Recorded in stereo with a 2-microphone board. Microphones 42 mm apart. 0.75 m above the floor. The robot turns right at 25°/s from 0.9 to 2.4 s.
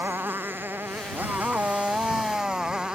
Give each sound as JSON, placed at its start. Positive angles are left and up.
{"t": 0.0, "sound": "a motorcycle", "azimuth_deg": -55}